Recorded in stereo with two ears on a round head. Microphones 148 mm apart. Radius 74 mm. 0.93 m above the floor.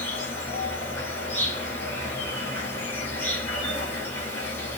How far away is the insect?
About 1.3 m.